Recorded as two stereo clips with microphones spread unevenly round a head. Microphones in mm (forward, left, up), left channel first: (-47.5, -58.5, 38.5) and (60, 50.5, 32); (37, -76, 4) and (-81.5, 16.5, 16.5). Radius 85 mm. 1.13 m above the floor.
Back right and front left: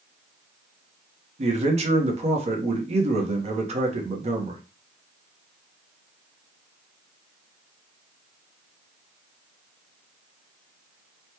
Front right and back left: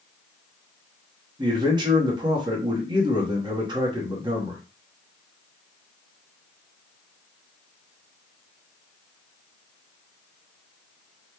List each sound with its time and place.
1.4 s a man speaking: 80° left, 0.9 m